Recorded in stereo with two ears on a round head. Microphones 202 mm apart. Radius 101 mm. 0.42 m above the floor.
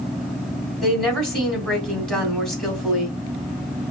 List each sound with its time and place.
0.8 s a woman speaking: centre (ahead or behind), 3 m